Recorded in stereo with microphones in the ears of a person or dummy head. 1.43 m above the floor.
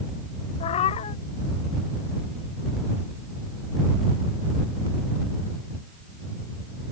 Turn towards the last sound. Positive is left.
turn(degrees=40)  # may be behind; listen again after turning